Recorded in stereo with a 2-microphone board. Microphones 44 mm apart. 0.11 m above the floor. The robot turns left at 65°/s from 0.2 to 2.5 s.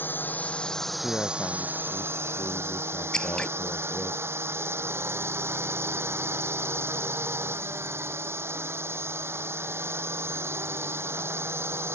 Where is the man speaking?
160° left; by 4.1 s 65° left.